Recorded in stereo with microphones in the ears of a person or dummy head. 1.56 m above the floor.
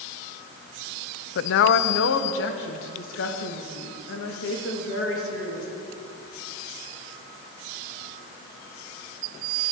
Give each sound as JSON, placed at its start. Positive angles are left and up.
{"t": 1.4, "sound": "a woman speaking", "side_deg": 70, "distance_m": 0.5}